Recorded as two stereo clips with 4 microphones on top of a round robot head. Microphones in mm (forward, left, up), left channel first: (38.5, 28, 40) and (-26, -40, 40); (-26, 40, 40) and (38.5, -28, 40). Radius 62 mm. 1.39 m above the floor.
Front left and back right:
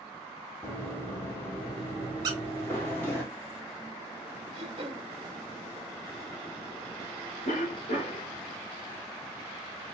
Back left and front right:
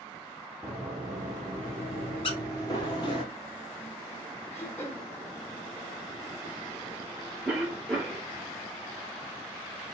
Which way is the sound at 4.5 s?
165° right.